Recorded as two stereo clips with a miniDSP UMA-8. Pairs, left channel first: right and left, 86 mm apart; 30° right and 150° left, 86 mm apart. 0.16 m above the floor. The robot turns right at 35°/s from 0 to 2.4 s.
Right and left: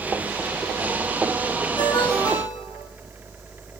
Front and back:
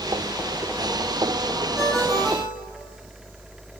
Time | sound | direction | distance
1.8 | a ringtone | 130° right | 4 m